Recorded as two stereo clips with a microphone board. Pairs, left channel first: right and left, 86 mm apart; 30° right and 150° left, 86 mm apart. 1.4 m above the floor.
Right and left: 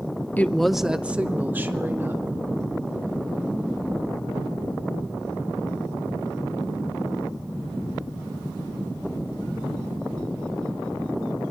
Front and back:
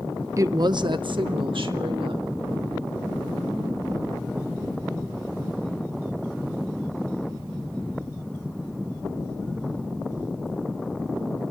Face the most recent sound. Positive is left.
turn(degrees=155)